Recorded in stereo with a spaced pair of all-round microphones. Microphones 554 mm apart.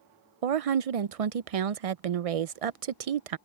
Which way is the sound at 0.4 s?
85° right.